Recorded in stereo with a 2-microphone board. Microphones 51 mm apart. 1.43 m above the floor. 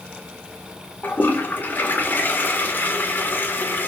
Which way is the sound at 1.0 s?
35° left (ahead or behind).